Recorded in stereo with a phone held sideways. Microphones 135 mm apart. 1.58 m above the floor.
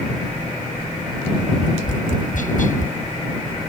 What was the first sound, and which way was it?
Tapping, 75° left (ahead or behind).